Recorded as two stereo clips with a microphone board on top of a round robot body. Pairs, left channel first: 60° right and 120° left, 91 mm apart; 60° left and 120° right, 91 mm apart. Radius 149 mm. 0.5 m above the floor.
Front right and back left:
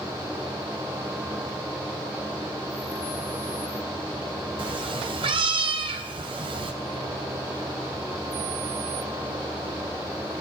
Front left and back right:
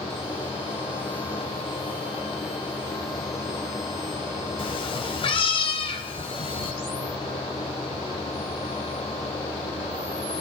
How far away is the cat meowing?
About 0.8 m.